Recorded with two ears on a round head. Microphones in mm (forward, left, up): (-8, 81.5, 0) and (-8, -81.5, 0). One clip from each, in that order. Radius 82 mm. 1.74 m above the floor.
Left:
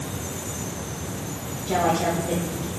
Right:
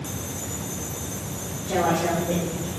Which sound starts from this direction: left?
A woman speaking, at 1.7 s.